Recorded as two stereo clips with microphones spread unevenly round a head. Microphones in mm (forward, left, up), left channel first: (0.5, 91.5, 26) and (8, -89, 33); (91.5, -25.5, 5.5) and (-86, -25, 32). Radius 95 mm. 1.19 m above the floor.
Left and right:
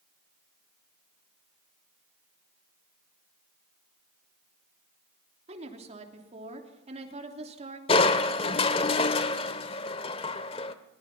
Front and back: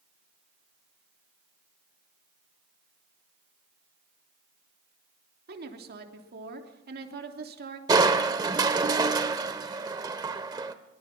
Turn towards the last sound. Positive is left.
turn(degrees=140)